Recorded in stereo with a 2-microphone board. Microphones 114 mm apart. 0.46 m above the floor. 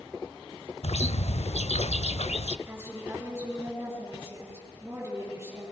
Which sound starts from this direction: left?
A bird, at 0.8 s.